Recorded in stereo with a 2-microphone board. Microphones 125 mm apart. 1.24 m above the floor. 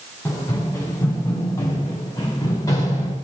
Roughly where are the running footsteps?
Left.